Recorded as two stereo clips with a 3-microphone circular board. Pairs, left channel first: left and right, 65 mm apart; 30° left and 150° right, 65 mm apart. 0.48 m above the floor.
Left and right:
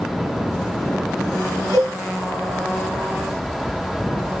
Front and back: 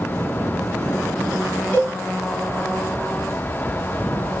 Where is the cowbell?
90° left, 2 m.